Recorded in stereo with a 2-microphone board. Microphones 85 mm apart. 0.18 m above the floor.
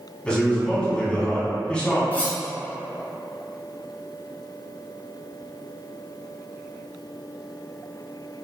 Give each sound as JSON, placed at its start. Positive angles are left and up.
{"t": 0.2, "sound": "a man speaking", "side_deg": 15, "distance_m": 1.1}
{"t": 2.1, "sound": "cutlery clinking", "side_deg": 25, "distance_m": 1.0}